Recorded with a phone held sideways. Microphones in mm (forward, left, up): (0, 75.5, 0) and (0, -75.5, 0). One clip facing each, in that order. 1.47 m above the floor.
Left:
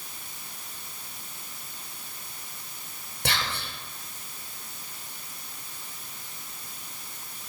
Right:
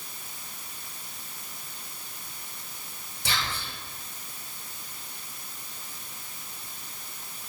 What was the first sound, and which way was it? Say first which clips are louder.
Whispering: left 2 dB; 60° left (ahead or behind).